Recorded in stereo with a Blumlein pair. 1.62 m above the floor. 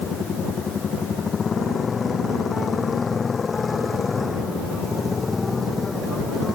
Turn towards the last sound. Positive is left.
turn(degrees=10)